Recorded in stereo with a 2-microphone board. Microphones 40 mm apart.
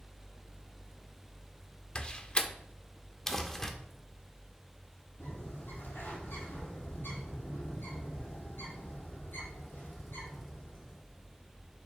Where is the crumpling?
15° left (ahead or behind), 0.9 m.